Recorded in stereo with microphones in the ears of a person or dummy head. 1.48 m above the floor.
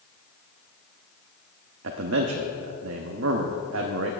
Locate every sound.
1.8 s a man speaking: 70° right (ahead or behind), 0.9 m